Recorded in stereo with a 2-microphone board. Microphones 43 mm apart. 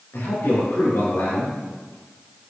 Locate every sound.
0.1 s a man speaking: 70° left (ahead or behind), 7.5 m